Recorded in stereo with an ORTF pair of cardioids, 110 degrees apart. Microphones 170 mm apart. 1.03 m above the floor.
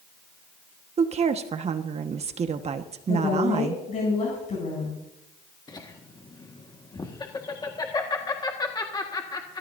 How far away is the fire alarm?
No fire alarm in this recording.